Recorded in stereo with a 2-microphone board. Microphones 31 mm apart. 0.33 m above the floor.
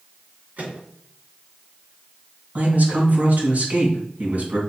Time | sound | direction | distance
0.6 | a microwave | 60° right (ahead or behind) | 4.5 m
2.5 | a man speaking | 50° right (ahead or behind) | 3 m